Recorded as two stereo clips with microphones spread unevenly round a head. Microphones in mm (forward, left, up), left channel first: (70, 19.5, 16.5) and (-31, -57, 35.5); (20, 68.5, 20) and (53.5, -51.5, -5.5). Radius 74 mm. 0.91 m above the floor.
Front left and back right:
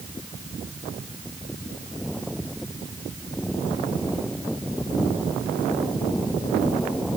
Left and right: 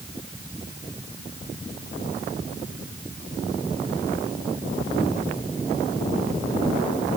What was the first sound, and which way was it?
Only background noise.